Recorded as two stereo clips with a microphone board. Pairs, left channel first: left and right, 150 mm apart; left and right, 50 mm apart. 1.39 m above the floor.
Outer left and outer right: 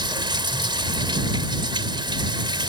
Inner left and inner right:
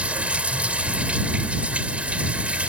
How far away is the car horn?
No car horn in this recording.